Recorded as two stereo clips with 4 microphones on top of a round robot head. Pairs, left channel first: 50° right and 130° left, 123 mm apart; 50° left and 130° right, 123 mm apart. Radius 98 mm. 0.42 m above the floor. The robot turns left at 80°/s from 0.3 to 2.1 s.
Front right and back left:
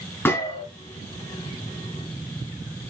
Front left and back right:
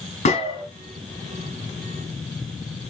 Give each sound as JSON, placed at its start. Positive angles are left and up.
{"t": 0.2, "sound": "a gunshot", "azimuth_deg": 20, "distance_m": 3.0}